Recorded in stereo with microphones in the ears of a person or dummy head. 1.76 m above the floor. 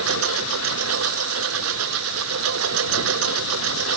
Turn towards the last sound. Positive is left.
turn(degrees=-80)